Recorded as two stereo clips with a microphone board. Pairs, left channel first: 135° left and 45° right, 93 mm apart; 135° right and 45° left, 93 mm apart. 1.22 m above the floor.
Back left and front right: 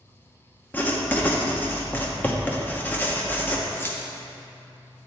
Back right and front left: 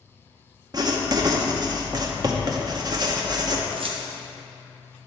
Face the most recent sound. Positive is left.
turn(degrees=70)